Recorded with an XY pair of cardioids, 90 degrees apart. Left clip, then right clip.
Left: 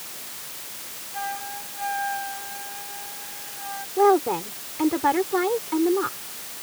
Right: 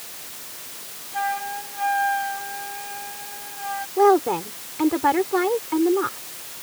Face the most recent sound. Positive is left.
turn(degrees=-15)